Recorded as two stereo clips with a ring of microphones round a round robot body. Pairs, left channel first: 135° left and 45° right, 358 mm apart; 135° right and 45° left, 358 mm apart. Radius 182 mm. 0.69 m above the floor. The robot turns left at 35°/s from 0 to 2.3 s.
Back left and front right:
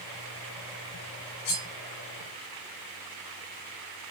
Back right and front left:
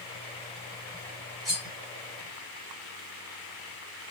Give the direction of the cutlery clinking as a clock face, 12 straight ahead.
7 o'clock.